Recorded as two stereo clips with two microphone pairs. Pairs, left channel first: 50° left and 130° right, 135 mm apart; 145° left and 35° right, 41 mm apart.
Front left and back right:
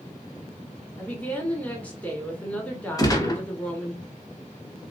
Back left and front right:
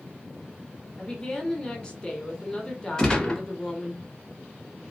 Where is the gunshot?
85° left, 1.1 m.